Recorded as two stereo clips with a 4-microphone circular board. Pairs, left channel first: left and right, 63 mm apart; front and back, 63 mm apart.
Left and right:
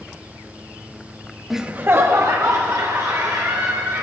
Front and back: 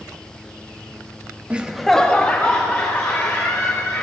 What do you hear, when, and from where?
1.5 s laughter: 175° right, 0.6 m; by 4.0 s 55° right, 3 m